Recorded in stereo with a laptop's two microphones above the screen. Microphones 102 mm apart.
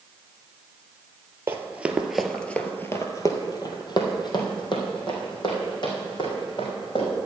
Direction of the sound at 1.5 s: 25° right (ahead or behind).